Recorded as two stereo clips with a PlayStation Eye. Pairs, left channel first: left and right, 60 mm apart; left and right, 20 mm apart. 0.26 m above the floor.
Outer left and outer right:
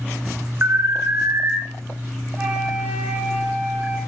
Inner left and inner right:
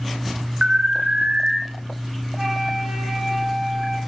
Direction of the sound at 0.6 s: 40° right (ahead or behind).